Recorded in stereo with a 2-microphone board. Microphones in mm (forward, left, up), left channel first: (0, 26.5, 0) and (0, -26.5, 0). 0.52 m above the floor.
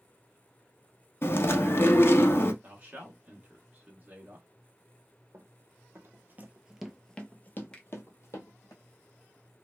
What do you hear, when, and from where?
1.2 s chewing: 50° left (ahead or behind), 0.6 m
2.6 s a man speaking: 30° right (ahead or behind), 1.2 m
5.3 s running footsteps: 60° right (ahead or behind), 1.0 m; by 8.7 s 60° left (ahead or behind), 1.2 m
7.7 s a finger snap: 20° left (ahead or behind), 0.8 m